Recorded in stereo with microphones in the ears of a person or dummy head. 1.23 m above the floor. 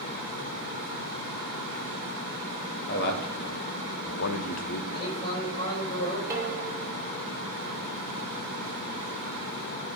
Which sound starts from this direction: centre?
Dishes clattering, at 6.3 s.